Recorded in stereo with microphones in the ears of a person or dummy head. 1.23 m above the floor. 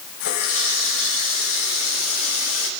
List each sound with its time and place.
0.2 s a running tap: 75° left (ahead or behind), 4.5 m